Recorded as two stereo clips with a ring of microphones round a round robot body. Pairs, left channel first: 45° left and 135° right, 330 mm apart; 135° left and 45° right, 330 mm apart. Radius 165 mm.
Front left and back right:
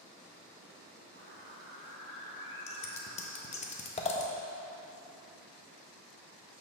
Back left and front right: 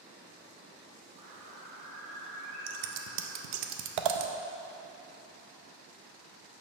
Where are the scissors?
25° right, 0.5 m.